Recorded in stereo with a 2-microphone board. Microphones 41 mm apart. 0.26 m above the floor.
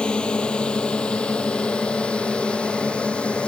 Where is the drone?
20° left (ahead or behind); by 3.5 s 25° left (ahead or behind).